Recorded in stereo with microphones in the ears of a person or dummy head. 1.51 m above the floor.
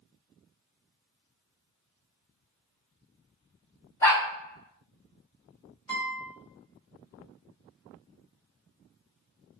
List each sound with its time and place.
4.0 s a dog barking: 15° left (ahead or behind), 1.6 m
5.9 s a guitar: 20° left (ahead or behind), 1.5 m